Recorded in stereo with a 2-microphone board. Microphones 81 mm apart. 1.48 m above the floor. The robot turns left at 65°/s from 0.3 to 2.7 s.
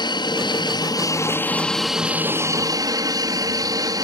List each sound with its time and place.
0.0 s an aircraft: 100° left; by 4.0 s 55° right